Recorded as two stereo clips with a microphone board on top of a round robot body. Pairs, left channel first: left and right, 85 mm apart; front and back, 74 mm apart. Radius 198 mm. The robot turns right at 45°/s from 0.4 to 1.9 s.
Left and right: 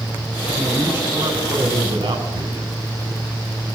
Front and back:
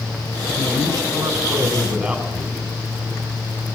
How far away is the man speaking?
About 4.5 m.